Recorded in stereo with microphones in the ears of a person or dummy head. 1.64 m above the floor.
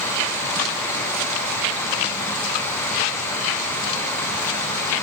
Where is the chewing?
No chewing in this recording.